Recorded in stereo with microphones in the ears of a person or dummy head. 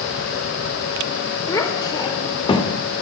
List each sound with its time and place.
1.5 s a child speaking: 20° left (ahead or behind), 4.5 m; by 2.7 s 30° left (ahead or behind), 4 m